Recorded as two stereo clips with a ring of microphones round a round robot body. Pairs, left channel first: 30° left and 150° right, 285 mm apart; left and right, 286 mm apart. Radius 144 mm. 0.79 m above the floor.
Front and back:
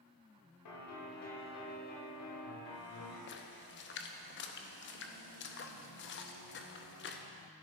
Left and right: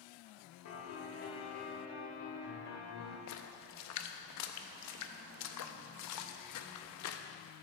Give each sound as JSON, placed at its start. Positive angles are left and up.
{"t": 0.7, "sound": "a piano", "azimuth_deg": 50, "distance_m": 1.8}
{"t": 3.3, "sound": "a splash", "azimuth_deg": 75, "distance_m": 0.7}